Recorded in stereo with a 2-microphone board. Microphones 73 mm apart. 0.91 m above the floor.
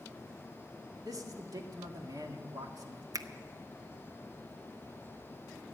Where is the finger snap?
55° right (ahead or behind), 0.7 m.